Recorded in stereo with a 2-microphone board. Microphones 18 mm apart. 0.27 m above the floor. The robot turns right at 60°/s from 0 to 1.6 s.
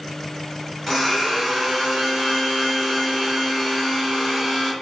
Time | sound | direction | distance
0.9 | a blender | 5° left (ahead or behind) | 1.7 m